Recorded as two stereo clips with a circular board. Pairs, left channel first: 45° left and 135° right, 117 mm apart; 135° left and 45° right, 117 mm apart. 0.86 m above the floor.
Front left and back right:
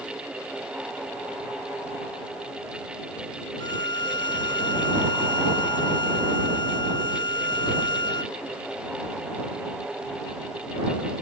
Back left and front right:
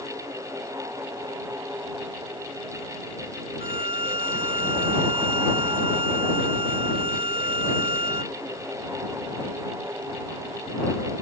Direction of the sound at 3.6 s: 5° right.